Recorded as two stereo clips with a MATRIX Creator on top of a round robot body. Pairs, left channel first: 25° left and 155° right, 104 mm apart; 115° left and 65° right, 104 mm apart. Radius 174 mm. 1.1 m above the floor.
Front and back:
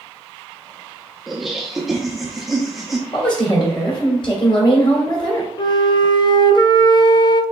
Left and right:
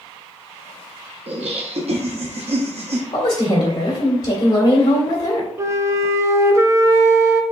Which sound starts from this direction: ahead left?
A woman speaking, at 3.1 s.